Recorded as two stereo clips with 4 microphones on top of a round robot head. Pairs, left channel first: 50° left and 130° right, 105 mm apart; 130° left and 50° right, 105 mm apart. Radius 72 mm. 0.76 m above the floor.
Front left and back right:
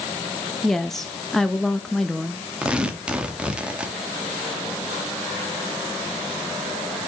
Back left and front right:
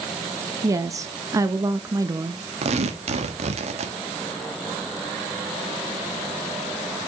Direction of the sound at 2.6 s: 50° right.